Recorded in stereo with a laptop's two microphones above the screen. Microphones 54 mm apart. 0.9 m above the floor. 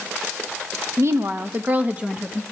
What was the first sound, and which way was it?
A woman speaking, 60° right (ahead or behind).